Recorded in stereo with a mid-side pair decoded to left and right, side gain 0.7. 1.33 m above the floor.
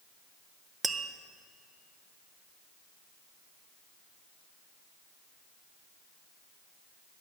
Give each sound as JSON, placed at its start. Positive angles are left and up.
{"t": 0.8, "sound": "tapping", "azimuth_deg": -20, "distance_m": 0.6}